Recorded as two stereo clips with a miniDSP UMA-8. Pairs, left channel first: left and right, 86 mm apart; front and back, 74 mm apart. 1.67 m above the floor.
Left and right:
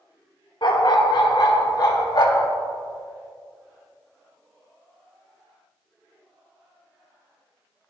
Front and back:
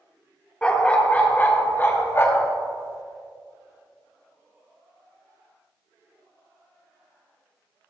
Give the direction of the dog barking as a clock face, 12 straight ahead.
10 o'clock.